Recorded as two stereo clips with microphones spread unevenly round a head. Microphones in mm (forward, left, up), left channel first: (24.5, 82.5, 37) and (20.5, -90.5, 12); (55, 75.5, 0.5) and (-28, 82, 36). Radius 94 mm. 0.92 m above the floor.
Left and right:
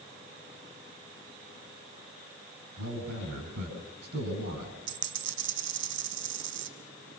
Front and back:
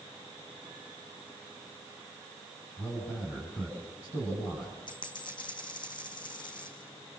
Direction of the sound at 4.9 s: 75° right.